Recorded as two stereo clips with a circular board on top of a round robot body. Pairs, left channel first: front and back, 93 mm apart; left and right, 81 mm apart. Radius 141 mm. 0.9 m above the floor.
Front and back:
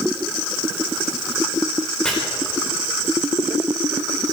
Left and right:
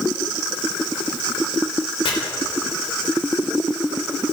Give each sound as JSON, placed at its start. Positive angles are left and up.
{"t": 2.0, "sound": "chopping", "azimuth_deg": 80, "distance_m": 3.5}